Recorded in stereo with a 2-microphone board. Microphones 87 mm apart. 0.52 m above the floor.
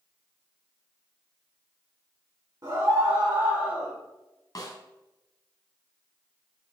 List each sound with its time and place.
2.6 s a scream: 45° right (ahead or behind), 2.0 m; by 3.9 s 15° right (ahead or behind), 1.9 m
4.5 s a snare drum: 45° left (ahead or behind), 1.8 m